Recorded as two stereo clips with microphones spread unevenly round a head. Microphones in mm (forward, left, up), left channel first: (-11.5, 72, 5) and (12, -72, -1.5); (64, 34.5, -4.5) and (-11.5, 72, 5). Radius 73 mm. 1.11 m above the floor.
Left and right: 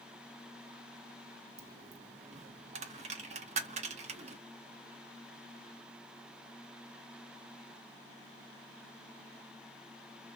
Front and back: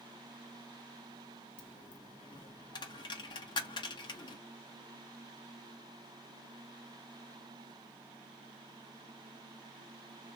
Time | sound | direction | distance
1.6 | a dropped coin | 50° right | 0.6 m